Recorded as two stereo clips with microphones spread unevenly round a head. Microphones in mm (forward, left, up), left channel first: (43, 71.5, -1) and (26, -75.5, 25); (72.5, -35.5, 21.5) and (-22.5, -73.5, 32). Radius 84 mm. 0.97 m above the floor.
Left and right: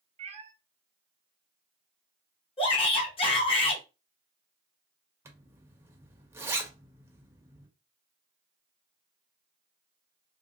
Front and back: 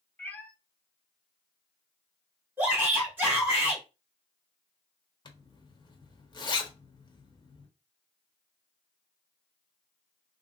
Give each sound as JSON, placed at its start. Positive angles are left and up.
{"t": 0.2, "sound": "a cat meowing", "azimuth_deg": -55, "distance_m": 0.7}
{"t": 2.6, "sound": "a shout", "azimuth_deg": 125, "distance_m": 1.3}
{"t": 5.2, "sound": "a zipper", "azimuth_deg": -20, "distance_m": 0.9}